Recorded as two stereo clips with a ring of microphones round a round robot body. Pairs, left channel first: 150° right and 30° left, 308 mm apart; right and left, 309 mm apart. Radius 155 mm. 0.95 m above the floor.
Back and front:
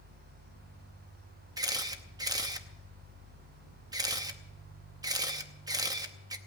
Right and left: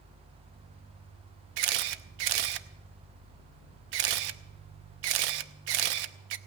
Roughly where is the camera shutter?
Left.